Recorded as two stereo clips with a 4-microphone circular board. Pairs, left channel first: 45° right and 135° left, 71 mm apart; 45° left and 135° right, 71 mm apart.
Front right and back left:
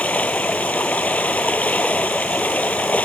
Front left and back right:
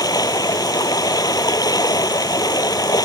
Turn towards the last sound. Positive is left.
turn(degrees=25)